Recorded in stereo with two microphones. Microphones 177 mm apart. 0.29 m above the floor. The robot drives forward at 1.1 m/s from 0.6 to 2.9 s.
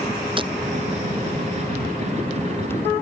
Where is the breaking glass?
30° right (ahead or behind).